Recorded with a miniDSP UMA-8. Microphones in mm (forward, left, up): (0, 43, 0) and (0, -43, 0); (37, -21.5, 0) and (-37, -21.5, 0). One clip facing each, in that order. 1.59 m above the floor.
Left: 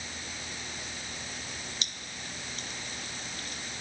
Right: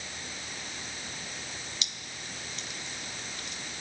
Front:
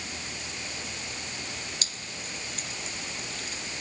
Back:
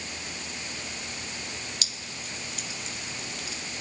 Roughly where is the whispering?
I don't hear whispering.